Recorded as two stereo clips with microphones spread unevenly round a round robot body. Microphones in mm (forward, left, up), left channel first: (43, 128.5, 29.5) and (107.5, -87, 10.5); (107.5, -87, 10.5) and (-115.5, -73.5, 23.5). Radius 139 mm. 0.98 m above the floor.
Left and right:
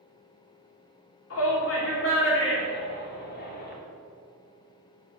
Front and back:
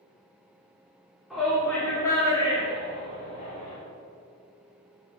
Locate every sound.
1.3 s a shout: 85° left, 3 m; by 3.7 s 60° left, 3 m